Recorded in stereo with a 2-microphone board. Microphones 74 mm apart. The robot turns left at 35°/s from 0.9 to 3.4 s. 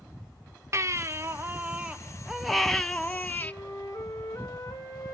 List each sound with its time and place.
0.7 s a baby crying: 125° right, 0.5 m; by 3.5 s 145° left, 0.5 m
3.4 s a flute: 50° left (ahead or behind), 2 m